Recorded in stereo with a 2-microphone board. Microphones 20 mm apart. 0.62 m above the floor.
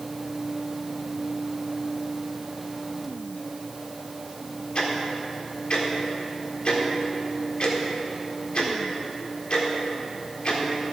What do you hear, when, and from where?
4.8 s ticking: 55° left (ahead or behind), 1.8 m